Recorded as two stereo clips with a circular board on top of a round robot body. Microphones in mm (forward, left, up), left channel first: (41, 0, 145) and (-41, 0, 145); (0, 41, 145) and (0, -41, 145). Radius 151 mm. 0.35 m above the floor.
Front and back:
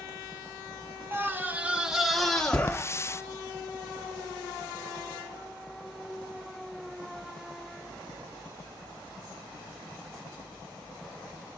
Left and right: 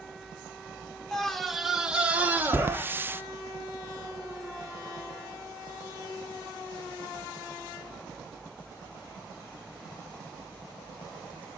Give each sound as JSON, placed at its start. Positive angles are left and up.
{"t": 1.1, "sound": "a scream", "azimuth_deg": 170, "distance_m": 1.6}
{"t": 2.7, "sound": "a hiss", "azimuth_deg": -40, "distance_m": 0.5}